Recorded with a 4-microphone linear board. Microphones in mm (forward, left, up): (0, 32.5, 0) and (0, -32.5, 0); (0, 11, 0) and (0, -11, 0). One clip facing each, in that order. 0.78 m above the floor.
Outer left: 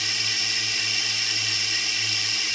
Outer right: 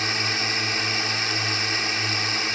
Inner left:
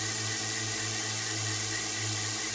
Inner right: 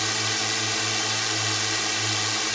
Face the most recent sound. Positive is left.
turn(degrees=-45)  # may be behind; listen again after turning